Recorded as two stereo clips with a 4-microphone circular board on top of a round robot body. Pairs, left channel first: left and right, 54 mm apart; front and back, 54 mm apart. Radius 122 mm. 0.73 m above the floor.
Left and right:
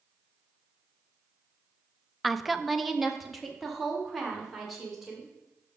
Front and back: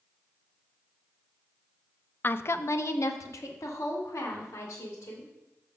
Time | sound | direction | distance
2.2 | a woman speaking | straight ahead | 0.5 m